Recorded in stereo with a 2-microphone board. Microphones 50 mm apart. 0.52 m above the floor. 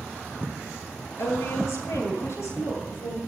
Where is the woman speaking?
65° left (ahead or behind), 10 m; by 3.2 s 60° left (ahead or behind), 11 m.